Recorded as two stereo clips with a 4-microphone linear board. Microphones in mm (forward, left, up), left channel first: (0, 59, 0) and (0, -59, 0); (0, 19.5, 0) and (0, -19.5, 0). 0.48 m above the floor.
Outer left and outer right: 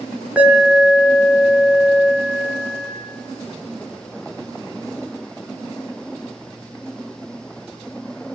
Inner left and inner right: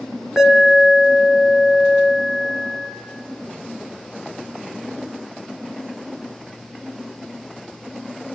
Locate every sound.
0.4 s an alarm: 10° right (ahead or behind), 3.5 m